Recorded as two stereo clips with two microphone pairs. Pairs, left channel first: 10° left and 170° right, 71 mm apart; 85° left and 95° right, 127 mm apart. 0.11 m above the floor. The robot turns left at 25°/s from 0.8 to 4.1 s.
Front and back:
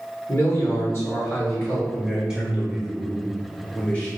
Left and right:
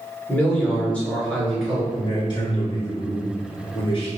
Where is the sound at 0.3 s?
20° left, 1.9 m; by 1.8 s 5° right, 1.9 m.